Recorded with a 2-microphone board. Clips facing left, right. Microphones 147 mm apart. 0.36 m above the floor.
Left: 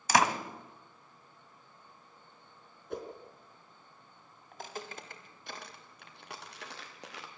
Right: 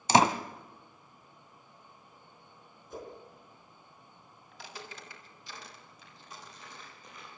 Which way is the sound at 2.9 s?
70° left (ahead or behind).